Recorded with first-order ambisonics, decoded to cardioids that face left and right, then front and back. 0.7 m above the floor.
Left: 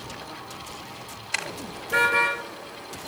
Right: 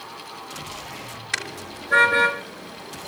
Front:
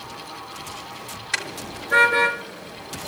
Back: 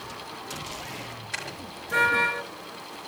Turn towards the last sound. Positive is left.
turn(degrees=-75)